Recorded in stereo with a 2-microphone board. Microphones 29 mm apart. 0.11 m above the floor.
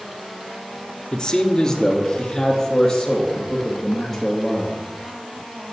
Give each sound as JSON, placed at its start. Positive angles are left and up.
{"t": 1.1, "sound": "a man speaking", "side_deg": 25, "distance_m": 1.4}